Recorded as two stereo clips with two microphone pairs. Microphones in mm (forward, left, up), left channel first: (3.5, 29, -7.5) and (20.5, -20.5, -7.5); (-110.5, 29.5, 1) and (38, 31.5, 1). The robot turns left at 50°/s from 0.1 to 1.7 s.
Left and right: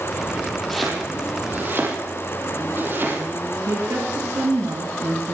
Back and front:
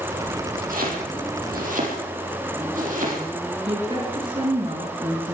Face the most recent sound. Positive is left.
turn(degrees=-55)